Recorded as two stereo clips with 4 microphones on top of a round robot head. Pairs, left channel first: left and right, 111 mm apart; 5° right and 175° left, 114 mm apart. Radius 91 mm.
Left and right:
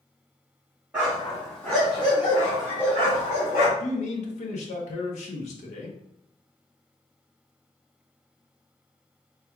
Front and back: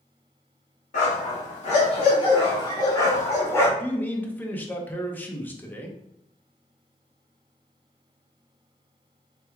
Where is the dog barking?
10° right, 1.3 m; by 3.7 s 65° left, 1.8 m.